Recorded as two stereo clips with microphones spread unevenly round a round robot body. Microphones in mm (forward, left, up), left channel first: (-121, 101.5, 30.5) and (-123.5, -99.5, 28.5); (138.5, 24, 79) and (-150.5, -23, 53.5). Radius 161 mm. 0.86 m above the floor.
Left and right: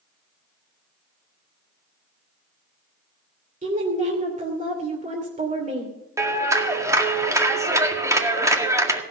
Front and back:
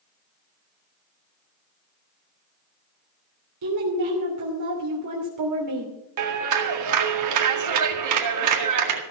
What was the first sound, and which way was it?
A woman speaking, 145° right.